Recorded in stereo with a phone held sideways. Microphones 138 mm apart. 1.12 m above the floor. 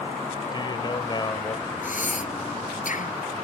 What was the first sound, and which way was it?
A man speaking, 35° left (ahead or behind).